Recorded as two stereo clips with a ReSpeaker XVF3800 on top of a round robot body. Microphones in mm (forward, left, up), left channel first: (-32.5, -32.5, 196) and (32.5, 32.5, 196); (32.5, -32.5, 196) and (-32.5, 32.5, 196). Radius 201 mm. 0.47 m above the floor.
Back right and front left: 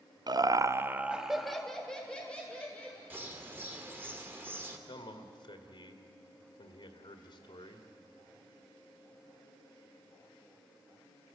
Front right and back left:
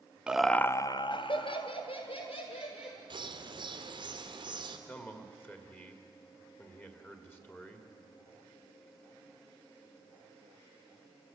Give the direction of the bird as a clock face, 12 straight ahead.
8 o'clock.